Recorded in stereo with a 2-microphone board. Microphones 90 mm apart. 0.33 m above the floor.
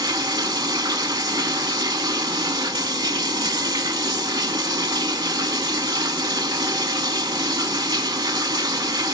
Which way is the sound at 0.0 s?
55° right (ahead or behind).